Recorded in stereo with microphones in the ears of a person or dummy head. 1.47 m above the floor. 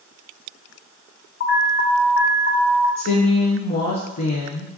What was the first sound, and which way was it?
An alarm, 55° left (ahead or behind).